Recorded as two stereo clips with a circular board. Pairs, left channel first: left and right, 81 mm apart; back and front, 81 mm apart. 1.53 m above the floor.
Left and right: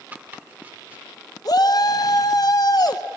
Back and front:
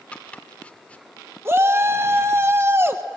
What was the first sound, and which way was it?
Chopping, 125° right.